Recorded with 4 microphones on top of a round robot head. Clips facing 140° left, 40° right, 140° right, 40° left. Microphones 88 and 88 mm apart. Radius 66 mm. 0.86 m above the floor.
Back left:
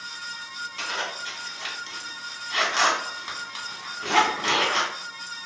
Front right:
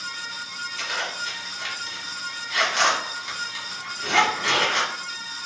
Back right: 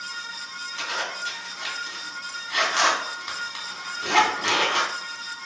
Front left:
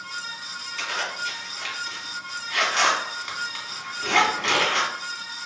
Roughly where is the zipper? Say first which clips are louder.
Front right 1 dB, front left 1 dB; behind.